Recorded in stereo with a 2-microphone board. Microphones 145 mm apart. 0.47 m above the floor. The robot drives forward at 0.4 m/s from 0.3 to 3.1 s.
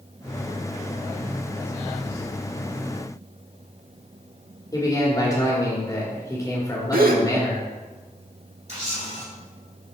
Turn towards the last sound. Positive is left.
turn(degrees=-45)  # may be behind; listen again after turning